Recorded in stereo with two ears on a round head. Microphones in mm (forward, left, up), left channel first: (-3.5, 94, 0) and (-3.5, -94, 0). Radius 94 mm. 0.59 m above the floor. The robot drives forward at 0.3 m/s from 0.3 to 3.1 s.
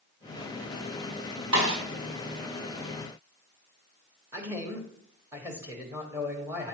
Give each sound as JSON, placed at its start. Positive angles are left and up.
{"t": 1.5, "sound": "a snare drum", "side_deg": -75, "distance_m": 4.0}
{"t": 4.3, "sound": "a man speaking", "side_deg": -10, "distance_m": 1.3}